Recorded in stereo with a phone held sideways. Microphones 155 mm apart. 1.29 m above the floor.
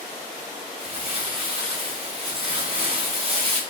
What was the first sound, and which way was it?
Crumpling, 35° right (ahead or behind).